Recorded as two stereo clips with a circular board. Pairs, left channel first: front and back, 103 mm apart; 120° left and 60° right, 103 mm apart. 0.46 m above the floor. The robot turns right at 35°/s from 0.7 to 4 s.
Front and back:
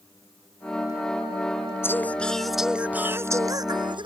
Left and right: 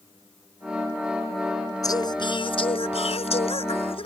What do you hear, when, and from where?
1.8 s singing: 65° left; by 4.1 s 140° left